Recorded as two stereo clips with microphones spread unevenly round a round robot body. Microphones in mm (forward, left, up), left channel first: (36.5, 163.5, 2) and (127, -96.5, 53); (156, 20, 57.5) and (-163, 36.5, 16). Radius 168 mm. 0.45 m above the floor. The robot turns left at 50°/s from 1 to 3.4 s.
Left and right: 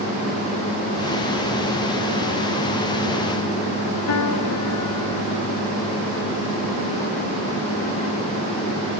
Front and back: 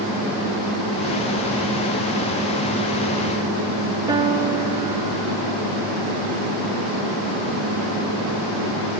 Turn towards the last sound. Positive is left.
turn(degrees=100)